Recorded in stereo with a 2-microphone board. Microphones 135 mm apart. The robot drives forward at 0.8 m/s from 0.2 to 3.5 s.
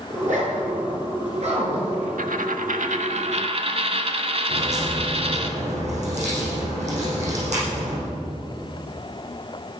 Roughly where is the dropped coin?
Right.